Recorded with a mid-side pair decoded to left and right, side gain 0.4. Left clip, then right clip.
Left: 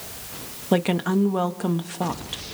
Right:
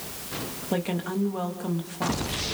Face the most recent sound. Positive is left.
turn(degrees=55)